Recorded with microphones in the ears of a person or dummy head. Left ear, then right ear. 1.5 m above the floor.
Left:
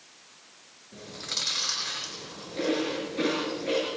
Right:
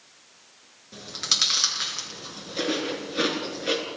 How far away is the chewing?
About 6.5 m.